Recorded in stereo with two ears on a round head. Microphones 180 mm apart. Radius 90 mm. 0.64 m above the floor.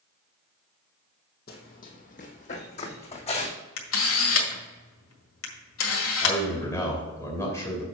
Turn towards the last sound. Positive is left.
turn(degrees=15)  # may be behind; listen again after turning